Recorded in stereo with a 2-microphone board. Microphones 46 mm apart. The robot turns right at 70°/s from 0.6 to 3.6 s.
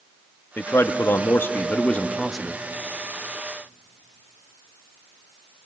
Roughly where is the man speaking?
Ahead left.